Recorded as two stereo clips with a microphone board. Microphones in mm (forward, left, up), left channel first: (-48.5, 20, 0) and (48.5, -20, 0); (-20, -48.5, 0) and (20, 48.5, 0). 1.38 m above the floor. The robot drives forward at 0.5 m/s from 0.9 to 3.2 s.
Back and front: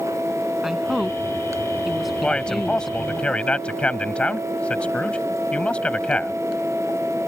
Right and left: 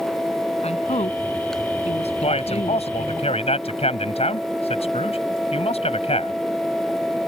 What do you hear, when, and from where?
0.6 s a woman speaking: 110° right; by 3.2 s 115° right
2.2 s a man speaking: 120° right; by 6.4 s 125° right